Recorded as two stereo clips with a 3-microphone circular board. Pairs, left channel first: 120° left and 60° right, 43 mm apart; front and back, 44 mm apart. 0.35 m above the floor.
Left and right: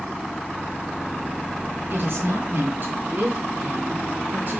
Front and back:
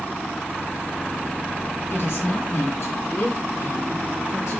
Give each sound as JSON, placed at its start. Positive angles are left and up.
{"t": 1.9, "sound": "a woman speaking", "azimuth_deg": -25, "distance_m": 7.0}